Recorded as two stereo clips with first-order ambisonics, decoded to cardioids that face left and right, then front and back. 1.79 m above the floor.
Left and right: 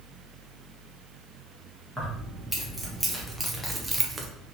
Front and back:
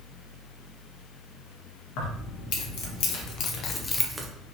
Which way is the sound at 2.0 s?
Straight ahead.